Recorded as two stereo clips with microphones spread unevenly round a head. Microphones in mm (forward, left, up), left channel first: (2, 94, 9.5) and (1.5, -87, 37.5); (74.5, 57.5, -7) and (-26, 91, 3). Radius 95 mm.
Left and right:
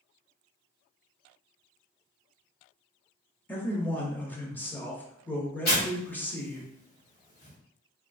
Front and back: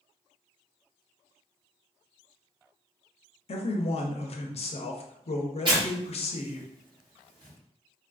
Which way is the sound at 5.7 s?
130° left.